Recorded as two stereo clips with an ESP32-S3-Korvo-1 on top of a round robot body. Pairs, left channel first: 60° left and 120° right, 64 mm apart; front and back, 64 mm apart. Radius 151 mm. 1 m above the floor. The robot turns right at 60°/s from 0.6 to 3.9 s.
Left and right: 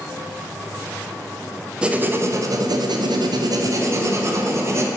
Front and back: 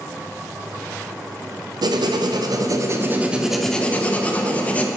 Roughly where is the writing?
Behind.